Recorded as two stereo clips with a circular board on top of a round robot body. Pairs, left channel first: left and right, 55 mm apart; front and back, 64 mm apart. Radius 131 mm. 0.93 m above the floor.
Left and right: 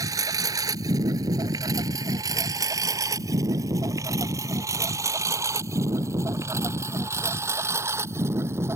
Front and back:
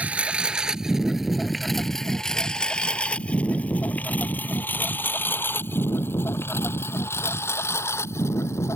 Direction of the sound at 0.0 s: 110° right.